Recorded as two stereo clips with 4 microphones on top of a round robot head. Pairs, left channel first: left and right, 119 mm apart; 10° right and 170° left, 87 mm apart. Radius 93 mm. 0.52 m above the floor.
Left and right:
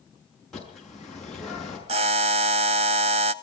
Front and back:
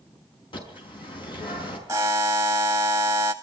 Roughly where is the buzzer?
Behind right.